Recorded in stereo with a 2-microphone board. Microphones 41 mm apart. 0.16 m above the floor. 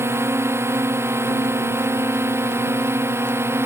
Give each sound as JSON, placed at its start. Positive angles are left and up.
{"t": 0.0, "sound": "a drone", "side_deg": -85}